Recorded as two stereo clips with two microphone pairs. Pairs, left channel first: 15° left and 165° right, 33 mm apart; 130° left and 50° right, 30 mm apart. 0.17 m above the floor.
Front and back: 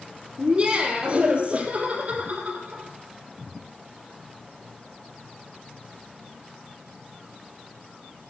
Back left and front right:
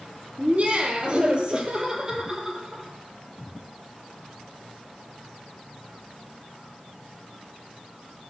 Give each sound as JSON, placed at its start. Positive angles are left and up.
{"t": 0.4, "sound": "laughter", "azimuth_deg": -95, "distance_m": 5.5}